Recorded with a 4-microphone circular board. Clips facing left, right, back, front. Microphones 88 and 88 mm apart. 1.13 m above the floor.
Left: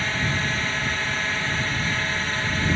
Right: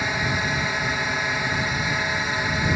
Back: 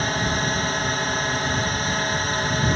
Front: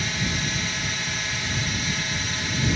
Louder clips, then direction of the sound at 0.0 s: Right 1 dB, back 5 dB; 160° right.